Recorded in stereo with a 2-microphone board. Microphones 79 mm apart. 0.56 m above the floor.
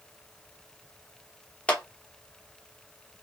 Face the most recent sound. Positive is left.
turn(degrees=15)  # may be behind; listen again after turning